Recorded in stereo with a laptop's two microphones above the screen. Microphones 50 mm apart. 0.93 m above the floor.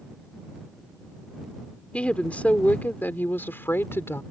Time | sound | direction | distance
1.9 | a woman speaking | 25° left (ahead or behind) | ?